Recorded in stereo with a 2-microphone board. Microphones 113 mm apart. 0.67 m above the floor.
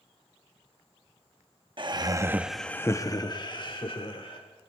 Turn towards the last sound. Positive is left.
turn(degrees=50)  # may be behind; listen again after turning